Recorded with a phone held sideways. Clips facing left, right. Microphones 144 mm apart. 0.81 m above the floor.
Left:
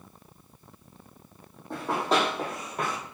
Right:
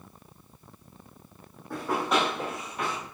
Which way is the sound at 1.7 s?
25° left (ahead or behind).